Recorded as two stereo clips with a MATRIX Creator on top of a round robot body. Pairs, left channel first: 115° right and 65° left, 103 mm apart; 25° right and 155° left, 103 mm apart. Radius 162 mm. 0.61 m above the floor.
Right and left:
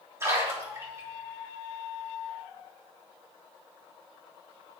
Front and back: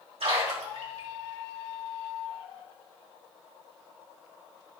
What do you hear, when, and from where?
0.2 s a splash: 130° left, 4 m